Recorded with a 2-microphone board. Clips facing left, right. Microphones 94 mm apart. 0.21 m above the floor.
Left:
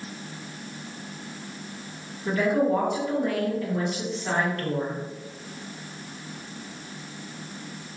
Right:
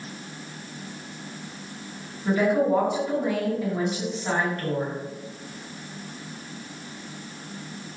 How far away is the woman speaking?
About 2.0 m.